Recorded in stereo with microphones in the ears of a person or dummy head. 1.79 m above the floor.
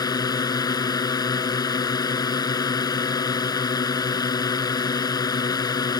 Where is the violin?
No violin in this recording.